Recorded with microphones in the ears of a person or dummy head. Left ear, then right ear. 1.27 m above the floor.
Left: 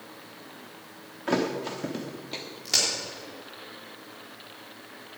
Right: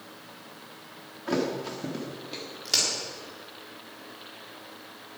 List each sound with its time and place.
1.3 s a thud: 20° left (ahead or behind), 1.2 m
2.6 s a crack: centre (ahead or behind), 4 m